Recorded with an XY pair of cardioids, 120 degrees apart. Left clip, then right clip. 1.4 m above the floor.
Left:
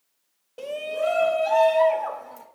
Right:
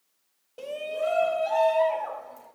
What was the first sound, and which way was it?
A shout, 20° left.